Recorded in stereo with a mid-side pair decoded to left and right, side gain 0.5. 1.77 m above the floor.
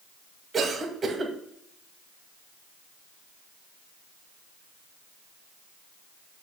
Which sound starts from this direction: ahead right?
A cough, at 0.5 s.